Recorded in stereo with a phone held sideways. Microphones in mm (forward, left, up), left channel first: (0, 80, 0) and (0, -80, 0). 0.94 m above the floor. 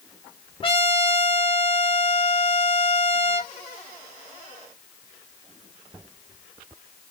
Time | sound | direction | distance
0.6 | a trumpet | 35° left (ahead or behind) | 1.1 m